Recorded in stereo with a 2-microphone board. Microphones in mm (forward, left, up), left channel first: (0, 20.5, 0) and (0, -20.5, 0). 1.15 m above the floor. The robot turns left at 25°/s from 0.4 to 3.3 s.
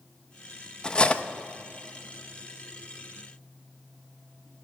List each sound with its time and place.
0.8 s cutlery clinking: 20° left (ahead or behind), 0.6 m; by 1.2 s 30° left (ahead or behind), 0.6 m